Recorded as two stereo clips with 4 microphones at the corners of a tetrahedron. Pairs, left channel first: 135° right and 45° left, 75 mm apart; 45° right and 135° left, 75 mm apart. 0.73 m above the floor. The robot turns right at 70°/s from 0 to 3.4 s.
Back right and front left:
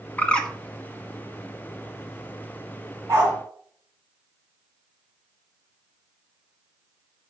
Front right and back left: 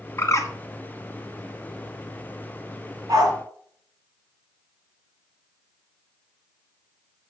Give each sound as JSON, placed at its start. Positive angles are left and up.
{"t": 0.2, "sound": "a bird", "azimuth_deg": -75, "distance_m": 1.0}
{"t": 3.1, "sound": "a dog barking", "azimuth_deg": 90, "distance_m": 3.5}